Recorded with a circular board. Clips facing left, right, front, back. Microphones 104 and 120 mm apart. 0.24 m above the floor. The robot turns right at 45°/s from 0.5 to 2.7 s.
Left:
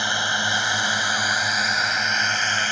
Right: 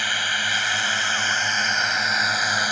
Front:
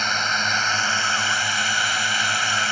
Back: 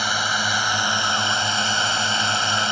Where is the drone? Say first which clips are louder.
Left 2 dB, back 1 dB; 115° left; by 2.7 s 150° right.